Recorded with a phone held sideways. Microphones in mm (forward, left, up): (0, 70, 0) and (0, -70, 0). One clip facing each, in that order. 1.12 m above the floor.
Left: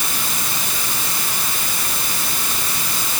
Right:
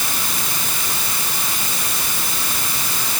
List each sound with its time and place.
Only background noise.